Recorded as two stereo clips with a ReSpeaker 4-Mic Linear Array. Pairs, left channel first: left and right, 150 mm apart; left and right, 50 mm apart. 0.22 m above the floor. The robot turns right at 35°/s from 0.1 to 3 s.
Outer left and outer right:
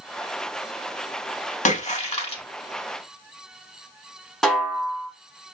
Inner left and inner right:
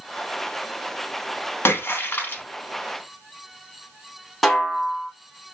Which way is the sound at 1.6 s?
55° left (ahead or behind).